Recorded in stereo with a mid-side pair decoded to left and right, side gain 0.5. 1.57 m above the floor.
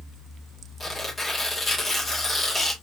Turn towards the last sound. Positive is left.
turn(degrees=20)